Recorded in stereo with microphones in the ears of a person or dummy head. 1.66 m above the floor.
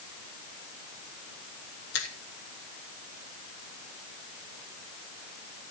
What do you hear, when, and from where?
1.9 s a finger snap: 80° left, 3 m